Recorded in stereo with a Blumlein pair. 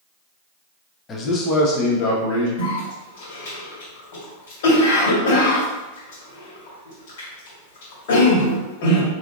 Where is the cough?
55° left, 1.9 m.